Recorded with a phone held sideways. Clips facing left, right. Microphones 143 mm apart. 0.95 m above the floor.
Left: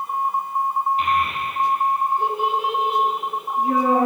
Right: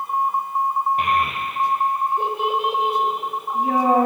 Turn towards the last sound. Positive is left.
turn(degrees=-85)